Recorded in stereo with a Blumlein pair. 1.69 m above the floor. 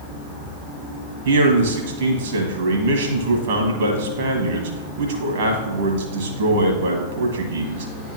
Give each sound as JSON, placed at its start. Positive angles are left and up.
{"t": 1.2, "sound": "a man speaking", "azimuth_deg": -55, "distance_m": 1.6}